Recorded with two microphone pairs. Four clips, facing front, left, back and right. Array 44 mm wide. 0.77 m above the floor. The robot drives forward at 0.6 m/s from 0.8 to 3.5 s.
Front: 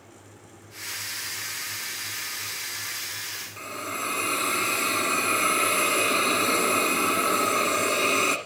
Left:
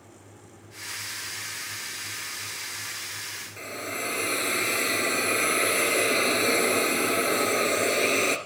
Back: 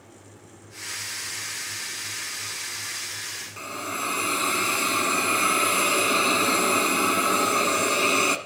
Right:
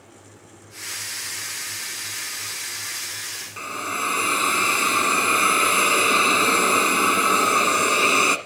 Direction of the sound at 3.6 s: 90° right.